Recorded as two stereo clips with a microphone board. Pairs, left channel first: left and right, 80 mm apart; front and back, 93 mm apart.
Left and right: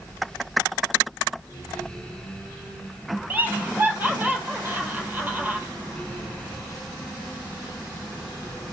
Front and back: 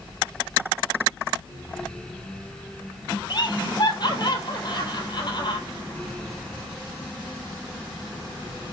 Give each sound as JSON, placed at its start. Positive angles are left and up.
{"t": 3.3, "sound": "laughter", "azimuth_deg": -25, "distance_m": 3.0}